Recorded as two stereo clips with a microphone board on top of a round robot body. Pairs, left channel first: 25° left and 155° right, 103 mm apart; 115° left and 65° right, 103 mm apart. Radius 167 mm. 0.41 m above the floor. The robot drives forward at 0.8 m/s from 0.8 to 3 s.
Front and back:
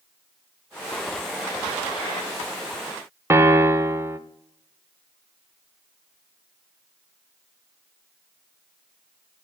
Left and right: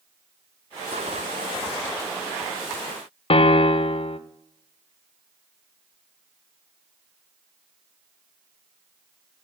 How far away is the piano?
About 0.7 m.